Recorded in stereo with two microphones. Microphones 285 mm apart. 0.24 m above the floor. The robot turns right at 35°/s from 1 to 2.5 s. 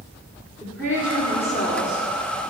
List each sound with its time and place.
0.6 s a woman speaking: 10° left, 3 m; by 2.0 s 45° left, 3 m